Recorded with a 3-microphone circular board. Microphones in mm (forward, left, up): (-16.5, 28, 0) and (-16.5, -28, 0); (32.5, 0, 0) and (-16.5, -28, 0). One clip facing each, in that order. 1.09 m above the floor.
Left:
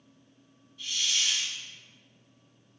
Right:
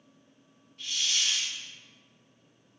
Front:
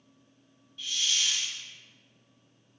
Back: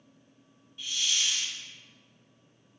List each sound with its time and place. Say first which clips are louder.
0.8 s a hiss: even, even; 85° right, 1.6 m